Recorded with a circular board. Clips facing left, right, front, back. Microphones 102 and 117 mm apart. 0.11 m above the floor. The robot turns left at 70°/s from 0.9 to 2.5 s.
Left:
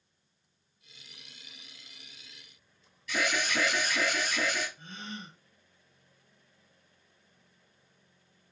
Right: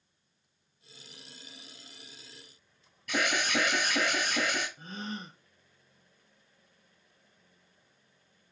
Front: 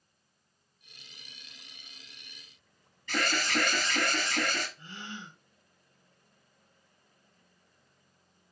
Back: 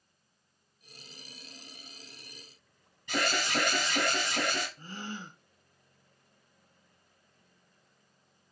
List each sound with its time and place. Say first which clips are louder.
3.1 s an alarm: right 1 dB, even; 110° right, 2 m
4.8 s a gasp: right 4 dB, back 3 dB; 135° right, 0.7 m